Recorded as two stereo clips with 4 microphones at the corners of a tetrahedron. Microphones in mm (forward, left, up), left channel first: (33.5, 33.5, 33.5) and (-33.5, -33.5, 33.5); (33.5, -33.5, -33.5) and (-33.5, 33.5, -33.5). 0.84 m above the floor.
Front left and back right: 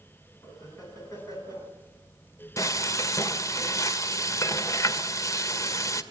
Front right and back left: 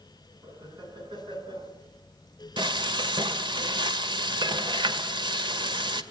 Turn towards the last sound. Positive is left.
turn(degrees=100)